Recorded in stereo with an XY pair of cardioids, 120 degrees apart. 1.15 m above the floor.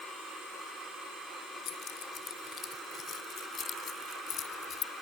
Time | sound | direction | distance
1.6 | keys jangling | 55° left | ?